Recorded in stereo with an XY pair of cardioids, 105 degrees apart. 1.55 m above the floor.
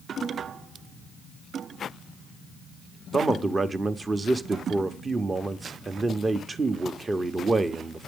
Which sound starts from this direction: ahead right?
A man speaking, at 3.1 s.